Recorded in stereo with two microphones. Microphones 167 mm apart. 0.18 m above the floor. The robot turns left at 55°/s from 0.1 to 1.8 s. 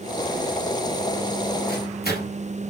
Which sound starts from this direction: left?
A microwave, at 1.7 s.